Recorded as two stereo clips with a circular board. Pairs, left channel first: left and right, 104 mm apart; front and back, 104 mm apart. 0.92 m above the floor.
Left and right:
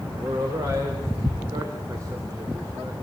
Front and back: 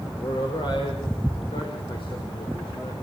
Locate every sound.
0.2 s a man speaking: 35° right, 4 m